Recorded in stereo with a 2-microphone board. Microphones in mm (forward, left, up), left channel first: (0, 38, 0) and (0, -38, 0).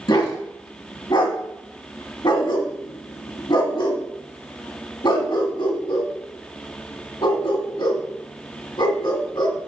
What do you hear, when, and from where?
0.1 s a dog barking: 75° left (ahead or behind), 1.5 m